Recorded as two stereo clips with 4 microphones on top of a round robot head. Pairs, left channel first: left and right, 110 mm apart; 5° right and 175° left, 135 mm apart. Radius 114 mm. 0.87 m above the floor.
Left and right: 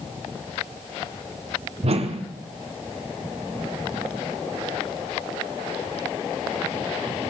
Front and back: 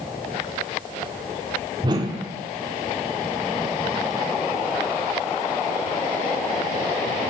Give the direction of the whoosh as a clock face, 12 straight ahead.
4 o'clock.